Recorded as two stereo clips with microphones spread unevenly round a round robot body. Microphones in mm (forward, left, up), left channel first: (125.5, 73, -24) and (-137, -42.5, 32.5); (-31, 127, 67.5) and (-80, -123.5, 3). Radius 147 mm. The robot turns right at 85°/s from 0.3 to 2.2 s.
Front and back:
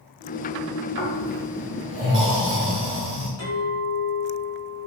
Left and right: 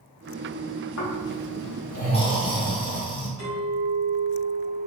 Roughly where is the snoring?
Ahead left.